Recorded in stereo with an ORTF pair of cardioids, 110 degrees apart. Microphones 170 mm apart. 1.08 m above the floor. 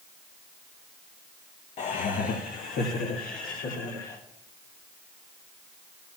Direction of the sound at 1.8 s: 45° left.